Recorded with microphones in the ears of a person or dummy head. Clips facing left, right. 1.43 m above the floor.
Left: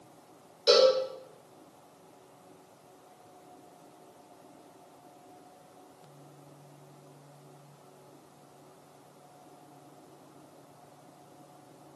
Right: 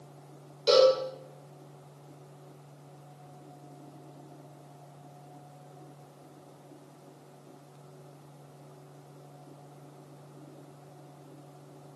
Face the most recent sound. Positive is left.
turn(degrees=10)  # may be behind; listen again after turning